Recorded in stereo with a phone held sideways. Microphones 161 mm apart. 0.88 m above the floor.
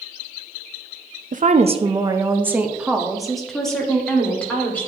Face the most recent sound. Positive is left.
turn(degrees=10)  # may be behind; listen again after turning